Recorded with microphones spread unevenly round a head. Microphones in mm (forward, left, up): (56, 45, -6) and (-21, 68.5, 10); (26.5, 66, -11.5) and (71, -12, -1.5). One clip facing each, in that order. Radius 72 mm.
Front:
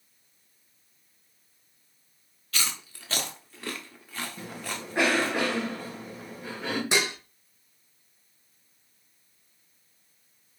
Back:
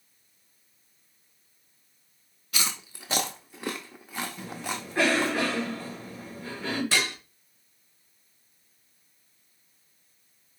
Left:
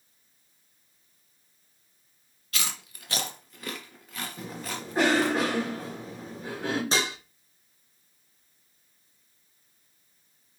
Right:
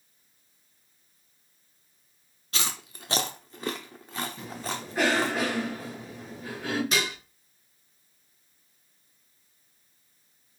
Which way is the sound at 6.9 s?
60° left.